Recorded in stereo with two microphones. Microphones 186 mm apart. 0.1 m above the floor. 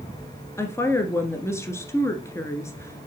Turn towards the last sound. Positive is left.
turn(degrees=15)  # may be behind; listen again after turning